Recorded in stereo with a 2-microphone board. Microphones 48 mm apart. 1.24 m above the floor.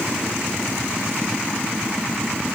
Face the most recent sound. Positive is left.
No sound to turn to.